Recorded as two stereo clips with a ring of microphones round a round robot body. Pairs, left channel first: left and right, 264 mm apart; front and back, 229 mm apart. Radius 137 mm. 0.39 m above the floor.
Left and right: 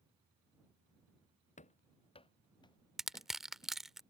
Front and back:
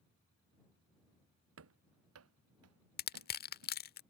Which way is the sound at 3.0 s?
Straight ahead.